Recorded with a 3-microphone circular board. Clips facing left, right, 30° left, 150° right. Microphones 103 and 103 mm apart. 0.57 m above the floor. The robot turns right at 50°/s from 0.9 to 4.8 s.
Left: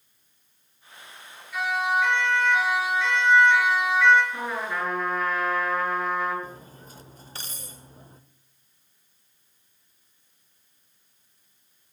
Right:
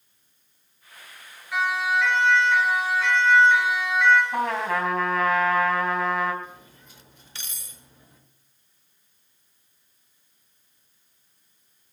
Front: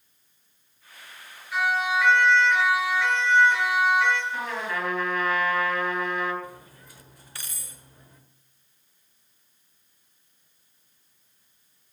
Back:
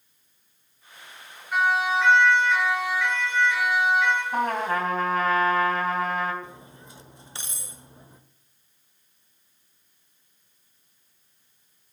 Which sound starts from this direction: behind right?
A trumpet, at 4.3 s.